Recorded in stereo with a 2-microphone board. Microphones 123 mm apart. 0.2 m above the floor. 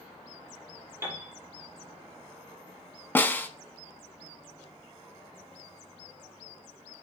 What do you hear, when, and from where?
1.0 s a piano: 20° right (ahead or behind), 3 m
3.1 s a snare drum: 15° left (ahead or behind), 0.8 m